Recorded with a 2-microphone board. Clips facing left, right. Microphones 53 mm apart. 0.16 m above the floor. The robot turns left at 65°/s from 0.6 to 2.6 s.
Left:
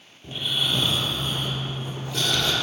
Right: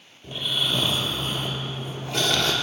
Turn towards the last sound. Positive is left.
turn(degrees=-125)